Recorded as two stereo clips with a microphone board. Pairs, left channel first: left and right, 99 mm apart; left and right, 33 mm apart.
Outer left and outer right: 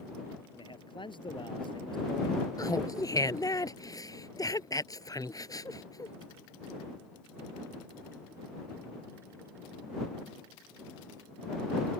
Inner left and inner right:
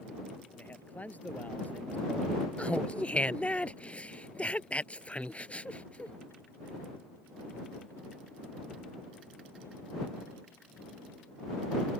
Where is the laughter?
40° left (ahead or behind).